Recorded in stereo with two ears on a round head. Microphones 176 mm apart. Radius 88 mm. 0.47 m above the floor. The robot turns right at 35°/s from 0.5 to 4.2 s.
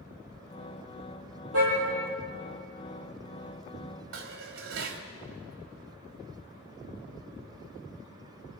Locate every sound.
1.5 s a car horn: 85° right, 8 m; by 1.7 s 80° right, 8 m
4.1 s dishes clattering: 75° right (ahead or behind), 1.8 m